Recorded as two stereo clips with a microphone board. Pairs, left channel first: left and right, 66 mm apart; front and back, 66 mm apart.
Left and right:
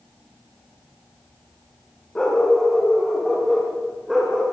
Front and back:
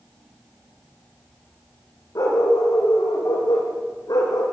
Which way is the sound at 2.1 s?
15° left.